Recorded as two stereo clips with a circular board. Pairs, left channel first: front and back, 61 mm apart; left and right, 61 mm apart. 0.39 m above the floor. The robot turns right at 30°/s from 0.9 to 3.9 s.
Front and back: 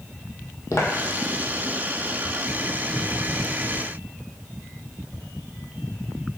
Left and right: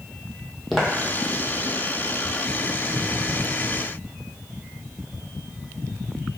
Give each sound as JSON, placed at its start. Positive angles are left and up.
{"t": 0.7, "sound": "footsteps", "azimuth_deg": 0, "distance_m": 0.6}